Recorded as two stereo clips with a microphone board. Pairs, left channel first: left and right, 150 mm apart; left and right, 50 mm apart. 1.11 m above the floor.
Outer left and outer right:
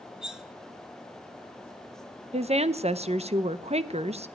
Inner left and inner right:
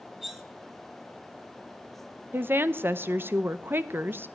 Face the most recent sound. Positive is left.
turn(degrees=-45)  # may be behind; listen again after turning